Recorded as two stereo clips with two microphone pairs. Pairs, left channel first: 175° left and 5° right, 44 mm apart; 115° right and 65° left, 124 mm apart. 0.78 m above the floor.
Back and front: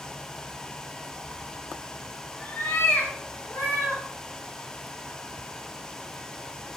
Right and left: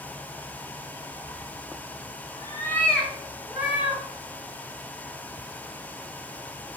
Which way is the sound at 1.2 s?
80° right.